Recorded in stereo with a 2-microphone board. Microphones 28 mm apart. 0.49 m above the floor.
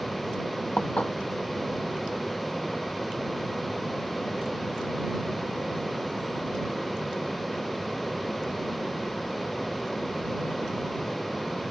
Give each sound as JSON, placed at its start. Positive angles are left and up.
{"t": 0.8, "sound": "dishes clattering", "side_deg": 55}